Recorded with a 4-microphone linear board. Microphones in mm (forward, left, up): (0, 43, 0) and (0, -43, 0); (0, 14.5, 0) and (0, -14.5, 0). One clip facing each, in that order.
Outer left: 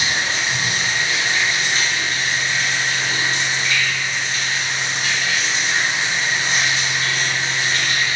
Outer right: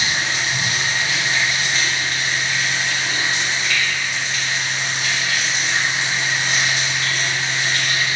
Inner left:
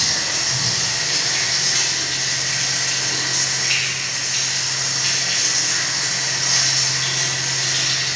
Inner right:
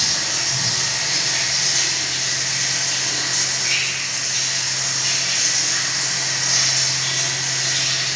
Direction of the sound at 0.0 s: 35° left (ahead or behind).